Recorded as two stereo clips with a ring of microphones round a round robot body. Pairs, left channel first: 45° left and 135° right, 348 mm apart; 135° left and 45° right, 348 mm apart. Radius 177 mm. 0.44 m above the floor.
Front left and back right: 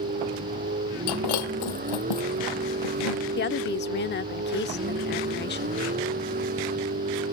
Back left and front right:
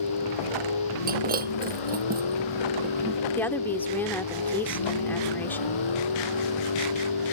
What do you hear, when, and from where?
0.0 s a vehicle: 160° left
1.1 s breaking glass: 20° left
3.4 s a woman speaking: 55° left